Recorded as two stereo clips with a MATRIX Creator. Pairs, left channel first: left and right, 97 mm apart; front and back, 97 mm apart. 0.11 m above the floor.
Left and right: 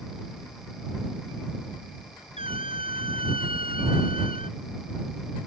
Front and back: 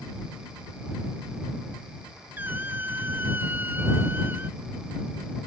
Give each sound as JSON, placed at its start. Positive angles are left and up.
{"t": 2.4, "sound": "a squeak", "azimuth_deg": -110}